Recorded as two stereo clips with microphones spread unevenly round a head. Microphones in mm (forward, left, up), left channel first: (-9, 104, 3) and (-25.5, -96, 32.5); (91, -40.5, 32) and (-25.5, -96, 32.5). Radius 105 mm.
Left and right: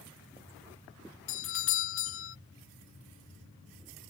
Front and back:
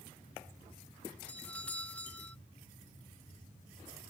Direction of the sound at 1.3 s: 110° left.